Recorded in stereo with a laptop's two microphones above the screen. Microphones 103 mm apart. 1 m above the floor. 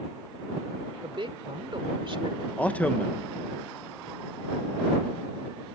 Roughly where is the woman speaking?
Right.